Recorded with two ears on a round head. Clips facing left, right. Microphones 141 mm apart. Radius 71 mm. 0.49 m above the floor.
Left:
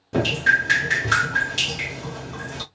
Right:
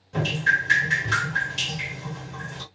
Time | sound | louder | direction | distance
0.1 | dripping | left 5 dB | 60° left (ahead or behind) | 1.1 m